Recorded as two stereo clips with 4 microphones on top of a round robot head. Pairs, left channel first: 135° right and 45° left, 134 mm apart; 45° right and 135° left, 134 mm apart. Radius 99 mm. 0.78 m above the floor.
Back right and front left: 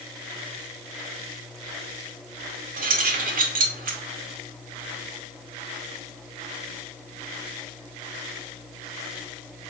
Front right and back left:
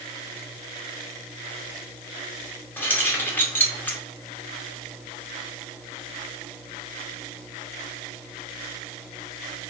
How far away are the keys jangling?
About 0.8 m.